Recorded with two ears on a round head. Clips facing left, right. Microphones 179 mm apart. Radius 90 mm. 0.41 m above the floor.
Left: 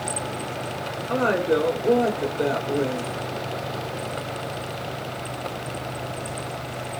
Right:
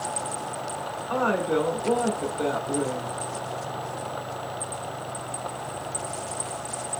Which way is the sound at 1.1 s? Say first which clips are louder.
Left 3 dB; 25° left (ahead or behind).